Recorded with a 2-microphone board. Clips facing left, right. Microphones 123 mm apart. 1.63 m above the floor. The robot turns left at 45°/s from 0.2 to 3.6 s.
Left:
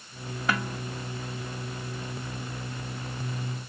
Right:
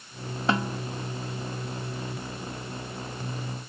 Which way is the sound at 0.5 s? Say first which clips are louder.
Right 3 dB; 30° right (ahead or behind).